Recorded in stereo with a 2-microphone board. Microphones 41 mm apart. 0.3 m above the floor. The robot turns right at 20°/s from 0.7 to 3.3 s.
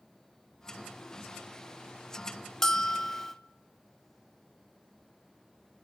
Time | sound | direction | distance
2.6 | a bell | 15° left (ahead or behind) | 0.5 m